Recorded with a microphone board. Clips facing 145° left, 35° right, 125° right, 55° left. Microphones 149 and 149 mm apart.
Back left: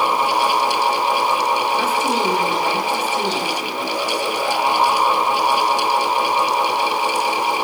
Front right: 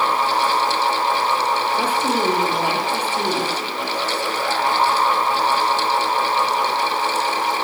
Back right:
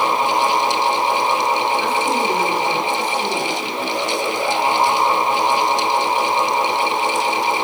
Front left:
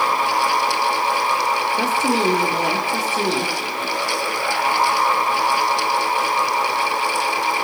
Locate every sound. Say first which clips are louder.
1.8 s a woman speaking: back left 1 dB, even; 45° left, 7.5 m